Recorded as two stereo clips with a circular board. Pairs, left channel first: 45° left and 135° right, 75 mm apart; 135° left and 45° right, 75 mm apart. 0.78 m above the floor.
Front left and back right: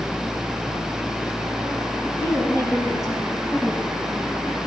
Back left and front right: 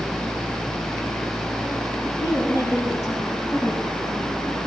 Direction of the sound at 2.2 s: 95° left.